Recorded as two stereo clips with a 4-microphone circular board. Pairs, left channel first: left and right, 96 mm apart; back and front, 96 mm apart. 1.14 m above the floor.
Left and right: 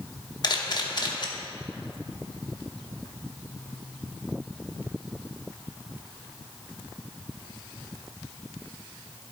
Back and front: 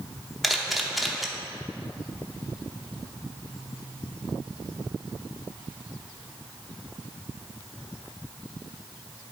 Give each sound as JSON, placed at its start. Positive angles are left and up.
{"t": 0.4, "sound": "a camera shutter", "azimuth_deg": 90, "distance_m": 0.8}